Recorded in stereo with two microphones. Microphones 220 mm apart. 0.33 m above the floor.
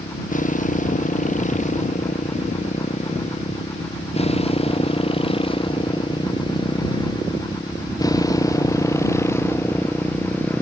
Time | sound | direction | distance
0.0 | a motorcycle | 35° left (ahead or behind) | ?